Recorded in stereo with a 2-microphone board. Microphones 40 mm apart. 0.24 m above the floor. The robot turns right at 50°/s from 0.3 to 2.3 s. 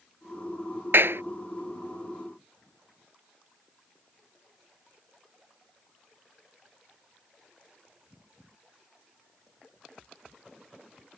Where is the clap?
65° right (ahead or behind); by 1.2 s 75° right (ahead or behind).